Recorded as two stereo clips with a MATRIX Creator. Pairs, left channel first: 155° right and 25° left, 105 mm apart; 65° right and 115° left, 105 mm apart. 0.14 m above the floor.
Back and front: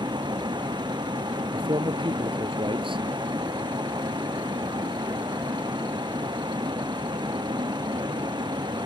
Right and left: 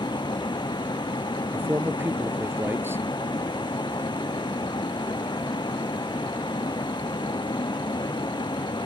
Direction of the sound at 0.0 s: 20° right.